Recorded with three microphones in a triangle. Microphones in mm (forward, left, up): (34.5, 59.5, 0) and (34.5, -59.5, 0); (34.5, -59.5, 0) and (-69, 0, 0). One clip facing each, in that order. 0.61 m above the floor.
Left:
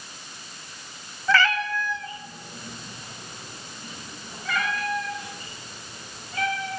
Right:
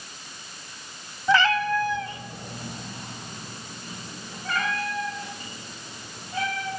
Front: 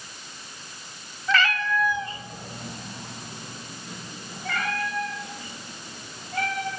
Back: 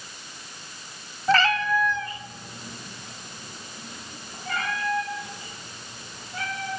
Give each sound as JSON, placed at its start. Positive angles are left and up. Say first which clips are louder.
{"t": 1.3, "sound": "a cat meowing", "louder": "right 2 dB, back 3 dB", "azimuth_deg": -160, "distance_m": 0.9}